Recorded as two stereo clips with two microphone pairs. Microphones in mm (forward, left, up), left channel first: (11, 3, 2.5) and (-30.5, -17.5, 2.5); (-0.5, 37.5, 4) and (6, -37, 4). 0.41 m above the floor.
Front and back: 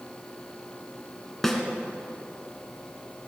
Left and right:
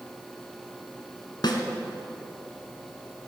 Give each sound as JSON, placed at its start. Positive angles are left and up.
{"t": 1.4, "sound": "a snare drum", "azimuth_deg": 110, "distance_m": 1.8}